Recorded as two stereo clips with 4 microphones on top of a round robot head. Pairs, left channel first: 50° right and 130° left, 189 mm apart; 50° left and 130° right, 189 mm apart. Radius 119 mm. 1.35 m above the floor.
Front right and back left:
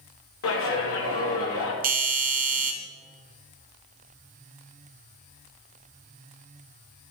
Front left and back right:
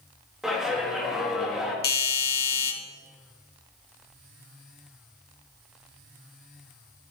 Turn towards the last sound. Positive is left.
turn(degrees=85)